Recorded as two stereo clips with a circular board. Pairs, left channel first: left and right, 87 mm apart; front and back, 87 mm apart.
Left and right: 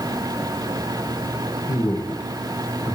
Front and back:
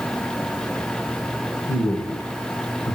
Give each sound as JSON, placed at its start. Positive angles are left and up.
{"t": 1.7, "sound": "a man speaking", "azimuth_deg": 35, "distance_m": 3.0}